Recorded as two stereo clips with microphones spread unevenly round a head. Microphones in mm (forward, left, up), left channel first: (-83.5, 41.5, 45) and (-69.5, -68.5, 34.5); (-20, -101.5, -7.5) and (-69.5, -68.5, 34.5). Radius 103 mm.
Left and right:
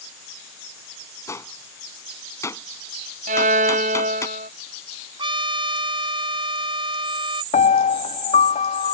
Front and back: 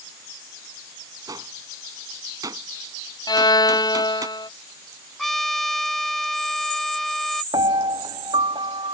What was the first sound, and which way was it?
A gunshot, 160° left.